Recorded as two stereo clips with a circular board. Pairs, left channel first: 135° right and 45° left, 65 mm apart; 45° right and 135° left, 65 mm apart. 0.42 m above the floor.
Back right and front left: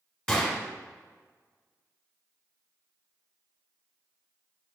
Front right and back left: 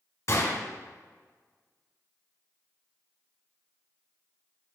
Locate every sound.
0.3 s a gunshot: 65° right, 1.3 m